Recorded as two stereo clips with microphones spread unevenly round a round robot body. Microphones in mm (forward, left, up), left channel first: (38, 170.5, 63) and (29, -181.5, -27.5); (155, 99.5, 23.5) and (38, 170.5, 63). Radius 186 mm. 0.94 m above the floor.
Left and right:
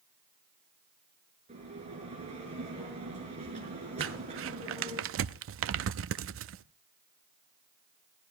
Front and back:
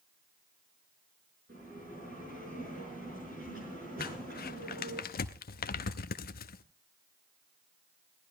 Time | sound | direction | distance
1.5 | a bell | 165° right | 5.5 m
4.0 | crumpling | 30° right | 0.5 m